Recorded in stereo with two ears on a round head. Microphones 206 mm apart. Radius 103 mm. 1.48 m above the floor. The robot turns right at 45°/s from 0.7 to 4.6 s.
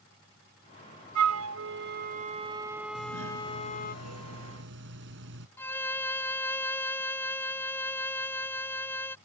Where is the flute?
85° right; by 4.0 s 45° left.